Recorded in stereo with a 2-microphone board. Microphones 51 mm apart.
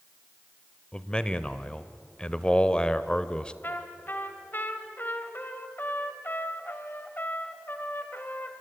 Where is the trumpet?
45° left (ahead or behind), 1.8 m.